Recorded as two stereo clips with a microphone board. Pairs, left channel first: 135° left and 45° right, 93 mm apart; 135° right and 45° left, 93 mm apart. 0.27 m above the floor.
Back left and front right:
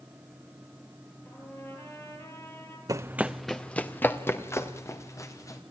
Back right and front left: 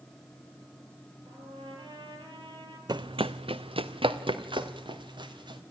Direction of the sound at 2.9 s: 5° left.